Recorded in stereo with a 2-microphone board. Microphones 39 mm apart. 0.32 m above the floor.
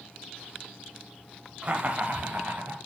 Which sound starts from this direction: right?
Laughter, at 1.6 s.